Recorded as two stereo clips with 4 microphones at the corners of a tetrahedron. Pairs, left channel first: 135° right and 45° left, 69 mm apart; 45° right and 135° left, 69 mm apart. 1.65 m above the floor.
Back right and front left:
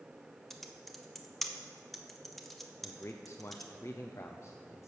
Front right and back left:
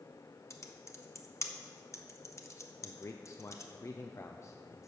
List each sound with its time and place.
0.5 s typing on a keyboard: 50° right, 0.9 m
2.8 s a man speaking: 90° right, 0.6 m